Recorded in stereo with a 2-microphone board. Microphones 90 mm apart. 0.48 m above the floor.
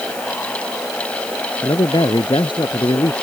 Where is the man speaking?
60° left (ahead or behind).